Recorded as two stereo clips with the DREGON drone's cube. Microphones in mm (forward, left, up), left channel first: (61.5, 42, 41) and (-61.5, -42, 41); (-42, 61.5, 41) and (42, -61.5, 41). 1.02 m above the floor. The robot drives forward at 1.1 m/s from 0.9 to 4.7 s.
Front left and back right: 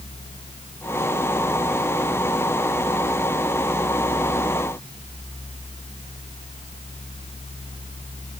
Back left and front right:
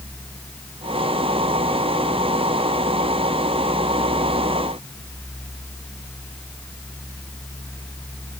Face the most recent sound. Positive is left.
No sound to turn to.